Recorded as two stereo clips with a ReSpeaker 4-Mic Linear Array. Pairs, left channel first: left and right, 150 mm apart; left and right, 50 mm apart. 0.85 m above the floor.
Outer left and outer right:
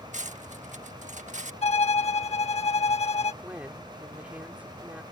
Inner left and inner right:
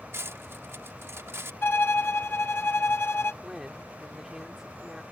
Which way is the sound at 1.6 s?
45° left (ahead or behind).